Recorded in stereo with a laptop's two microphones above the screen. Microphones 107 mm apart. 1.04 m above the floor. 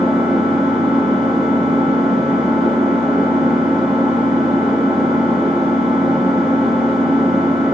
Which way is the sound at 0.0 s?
5° right (ahead or behind).